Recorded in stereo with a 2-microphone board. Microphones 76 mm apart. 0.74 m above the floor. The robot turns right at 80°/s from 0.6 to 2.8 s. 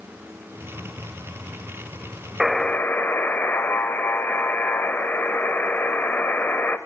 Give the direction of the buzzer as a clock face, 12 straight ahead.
12 o'clock.